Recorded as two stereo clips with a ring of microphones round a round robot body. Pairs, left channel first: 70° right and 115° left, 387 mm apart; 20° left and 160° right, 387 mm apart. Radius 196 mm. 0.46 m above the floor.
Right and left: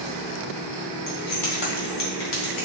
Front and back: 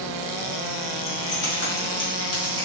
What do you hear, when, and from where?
1.1 s keys jangling: 25° right, 1.5 m; by 2.6 s 60° right, 1.6 m